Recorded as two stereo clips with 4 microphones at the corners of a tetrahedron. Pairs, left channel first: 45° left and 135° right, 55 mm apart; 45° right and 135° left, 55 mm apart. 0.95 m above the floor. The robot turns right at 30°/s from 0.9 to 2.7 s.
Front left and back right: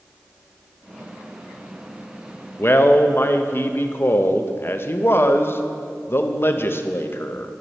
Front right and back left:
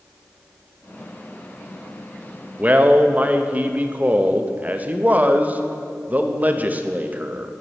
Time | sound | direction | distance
2.6 | a man speaking | 80° left | 0.6 m